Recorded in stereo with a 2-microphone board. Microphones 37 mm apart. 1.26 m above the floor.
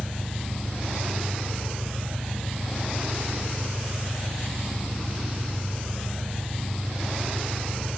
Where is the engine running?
5° right (ahead or behind), 5.5 m.